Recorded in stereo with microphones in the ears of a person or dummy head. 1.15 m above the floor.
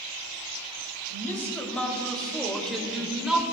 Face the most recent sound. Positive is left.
turn(degrees=-5)  # may be behind; listen again after turning